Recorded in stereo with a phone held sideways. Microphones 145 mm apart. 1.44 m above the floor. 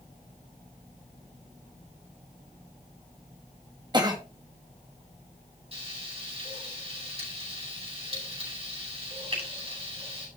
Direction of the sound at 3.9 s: 30° right (ahead or behind).